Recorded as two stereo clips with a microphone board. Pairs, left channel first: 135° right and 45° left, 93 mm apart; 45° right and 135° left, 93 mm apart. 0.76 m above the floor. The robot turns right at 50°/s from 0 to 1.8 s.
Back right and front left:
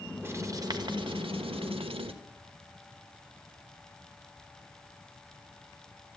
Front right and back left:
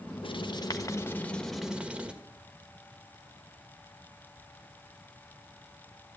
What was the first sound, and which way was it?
Writing, 20° right.